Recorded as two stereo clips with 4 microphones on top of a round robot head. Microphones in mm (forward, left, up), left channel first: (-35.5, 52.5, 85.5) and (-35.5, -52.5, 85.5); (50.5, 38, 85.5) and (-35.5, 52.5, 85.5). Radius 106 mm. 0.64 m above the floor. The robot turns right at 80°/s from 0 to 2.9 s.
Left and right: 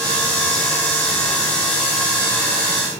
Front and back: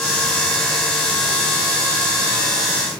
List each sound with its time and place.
Only background noise.